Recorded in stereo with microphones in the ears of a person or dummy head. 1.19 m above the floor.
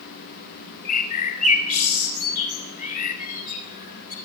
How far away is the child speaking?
I don't hear a child speaking.